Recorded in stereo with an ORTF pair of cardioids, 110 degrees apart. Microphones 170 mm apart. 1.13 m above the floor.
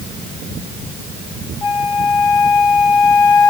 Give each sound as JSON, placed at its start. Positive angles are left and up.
{"t": 1.6, "sound": "a flute", "azimuth_deg": 20, "distance_m": 1.8}